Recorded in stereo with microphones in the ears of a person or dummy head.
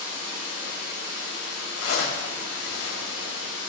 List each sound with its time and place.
0.0 s running water: 45° right (ahead or behind), 1.6 m
1.8 s a zipper: 55° left (ahead or behind), 0.6 m